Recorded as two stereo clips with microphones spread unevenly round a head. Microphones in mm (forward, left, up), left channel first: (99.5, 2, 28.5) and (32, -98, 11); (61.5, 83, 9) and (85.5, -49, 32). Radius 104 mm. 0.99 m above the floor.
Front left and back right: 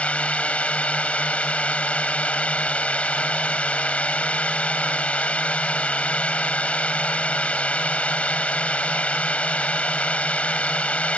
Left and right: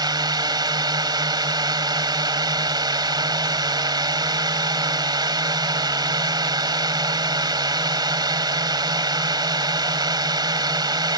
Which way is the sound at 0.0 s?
20° right.